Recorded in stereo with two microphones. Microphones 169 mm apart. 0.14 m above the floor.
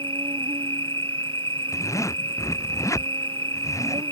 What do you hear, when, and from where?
0.0 s an insect: 30° right (ahead or behind)
1.7 s a zipper: 20° left (ahead or behind)